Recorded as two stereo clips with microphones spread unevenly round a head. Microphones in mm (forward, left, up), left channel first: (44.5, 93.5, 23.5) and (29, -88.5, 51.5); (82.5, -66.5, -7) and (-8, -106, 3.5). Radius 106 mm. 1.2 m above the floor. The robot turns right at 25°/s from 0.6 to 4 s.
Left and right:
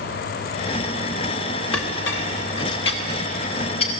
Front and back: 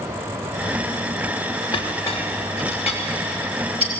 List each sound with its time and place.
1.7 s a clink: 95° left, 2.5 m; by 3.9 s 150° left, 2.5 m